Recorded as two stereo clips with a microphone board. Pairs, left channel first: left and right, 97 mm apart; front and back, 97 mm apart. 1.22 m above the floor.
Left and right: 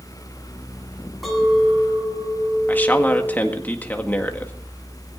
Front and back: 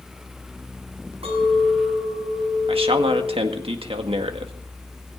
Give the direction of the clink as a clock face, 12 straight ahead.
6 o'clock.